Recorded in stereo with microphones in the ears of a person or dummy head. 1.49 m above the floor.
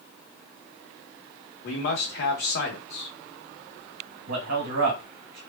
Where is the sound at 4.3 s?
70° right (ahead or behind), 1.4 m.